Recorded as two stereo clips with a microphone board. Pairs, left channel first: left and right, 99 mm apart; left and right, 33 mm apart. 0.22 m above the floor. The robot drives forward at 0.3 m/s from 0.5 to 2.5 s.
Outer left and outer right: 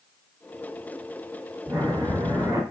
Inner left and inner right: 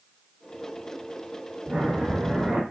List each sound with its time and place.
1.7 s breathing: 30° right (ahead or behind), 1.2 m